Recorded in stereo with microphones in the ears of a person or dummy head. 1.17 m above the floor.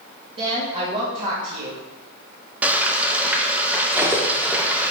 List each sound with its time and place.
0.4 s a woman speaking: 25° right (ahead or behind), 2.0 m
2.6 s frying: 10° right (ahead or behind), 0.8 m
3.9 s cutlery clinking: 10° right (ahead or behind), 1.3 m